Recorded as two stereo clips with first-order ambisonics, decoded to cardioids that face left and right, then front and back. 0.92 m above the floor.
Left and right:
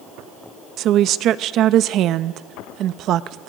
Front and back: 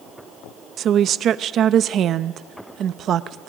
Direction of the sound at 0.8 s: 130° right.